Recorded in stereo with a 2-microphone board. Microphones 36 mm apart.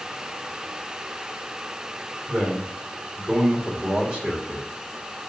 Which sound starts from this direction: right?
A man speaking, at 2.3 s.